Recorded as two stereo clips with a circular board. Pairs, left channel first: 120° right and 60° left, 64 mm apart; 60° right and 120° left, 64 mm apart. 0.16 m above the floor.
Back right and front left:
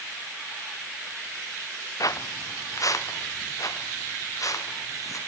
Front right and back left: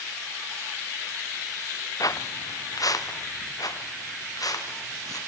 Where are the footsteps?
90° right, 1.2 m; by 5.2 s 85° right, 5 m.